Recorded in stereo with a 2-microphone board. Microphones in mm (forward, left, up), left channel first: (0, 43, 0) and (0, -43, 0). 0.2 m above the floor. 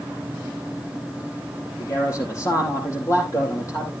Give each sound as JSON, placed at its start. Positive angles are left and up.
{"t": 1.8, "sound": "a man speaking", "side_deg": 40, "distance_m": 8.0}